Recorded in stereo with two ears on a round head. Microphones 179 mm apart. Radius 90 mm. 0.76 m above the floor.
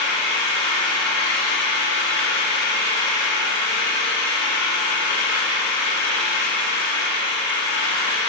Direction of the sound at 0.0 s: 55° left (ahead or behind).